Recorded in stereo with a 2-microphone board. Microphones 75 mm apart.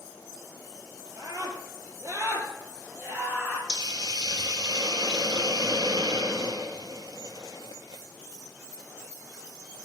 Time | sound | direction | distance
1.2 | a scream | 60° right (ahead or behind) | 3 m
3.7 | a hiss | 70° right (ahead or behind) | 1.6 m